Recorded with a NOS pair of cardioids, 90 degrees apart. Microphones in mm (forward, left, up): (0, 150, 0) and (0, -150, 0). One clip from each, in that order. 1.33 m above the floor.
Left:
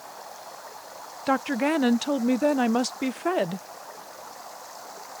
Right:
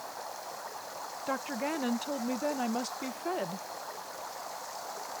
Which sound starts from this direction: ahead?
Running water, at 0.0 s.